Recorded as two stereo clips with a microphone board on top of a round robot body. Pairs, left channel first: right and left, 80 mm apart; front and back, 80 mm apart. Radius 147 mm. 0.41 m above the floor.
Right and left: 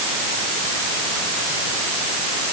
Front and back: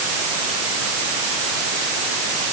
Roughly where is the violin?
No violin in this recording.